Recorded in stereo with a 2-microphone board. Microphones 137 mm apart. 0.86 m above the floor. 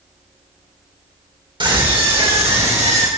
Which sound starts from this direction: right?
A scream, at 1.6 s.